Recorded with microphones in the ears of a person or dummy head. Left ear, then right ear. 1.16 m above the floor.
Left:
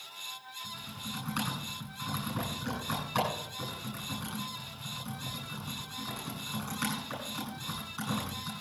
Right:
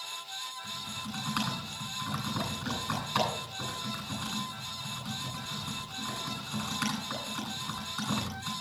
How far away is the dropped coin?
I don't hear a dropped coin.